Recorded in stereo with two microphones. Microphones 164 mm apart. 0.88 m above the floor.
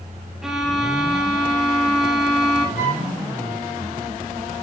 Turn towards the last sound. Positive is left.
turn(degrees=5)  # may be behind; listen again after turning